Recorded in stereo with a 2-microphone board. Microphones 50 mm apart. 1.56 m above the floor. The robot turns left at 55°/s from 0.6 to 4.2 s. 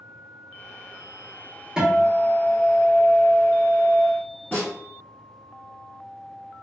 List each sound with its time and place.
1.8 s a guitar: 10° right (ahead or behind), 0.9 m; by 4.0 s 20° left (ahead or behind), 0.9 m
4.5 s a snare drum: 30° left (ahead or behind), 1.7 m